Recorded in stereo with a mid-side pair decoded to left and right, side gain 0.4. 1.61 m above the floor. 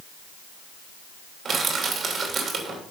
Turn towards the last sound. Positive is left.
turn(degrees=-55)